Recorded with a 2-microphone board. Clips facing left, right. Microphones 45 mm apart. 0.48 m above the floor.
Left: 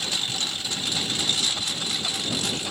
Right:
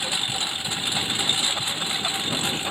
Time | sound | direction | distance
0.0 | a lawn mower | 20° right (ahead or behind) | ?